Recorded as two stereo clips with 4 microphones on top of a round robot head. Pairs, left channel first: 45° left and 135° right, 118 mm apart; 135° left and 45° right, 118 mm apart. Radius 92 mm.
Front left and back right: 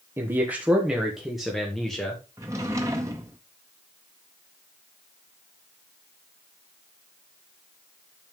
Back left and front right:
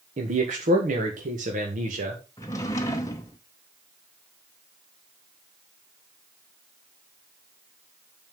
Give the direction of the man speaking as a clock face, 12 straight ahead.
2 o'clock.